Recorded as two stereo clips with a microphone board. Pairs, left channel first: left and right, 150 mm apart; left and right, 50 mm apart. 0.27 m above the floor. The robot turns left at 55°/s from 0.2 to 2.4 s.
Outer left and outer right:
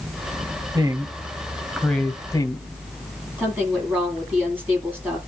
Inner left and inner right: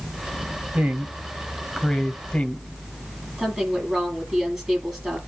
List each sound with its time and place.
0.7 s a woman speaking: 30° right (ahead or behind), 1.3 m; by 2.7 s 25° left (ahead or behind), 1.3 m
3.4 s a woman speaking: 15° right (ahead or behind), 8 m